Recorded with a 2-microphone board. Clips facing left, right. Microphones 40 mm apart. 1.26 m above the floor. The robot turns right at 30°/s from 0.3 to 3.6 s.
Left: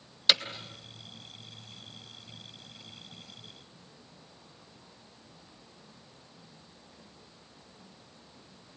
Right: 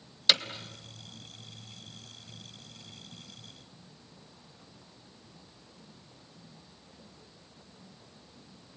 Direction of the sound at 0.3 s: 5° left (ahead or behind).